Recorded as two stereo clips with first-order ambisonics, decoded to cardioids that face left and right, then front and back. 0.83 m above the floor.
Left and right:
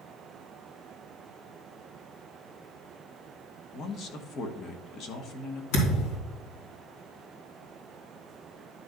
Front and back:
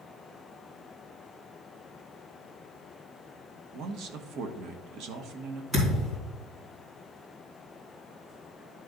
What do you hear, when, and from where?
3.7 s a man speaking: 145° left, 1.2 m
5.7 s a thud: 105° left, 4 m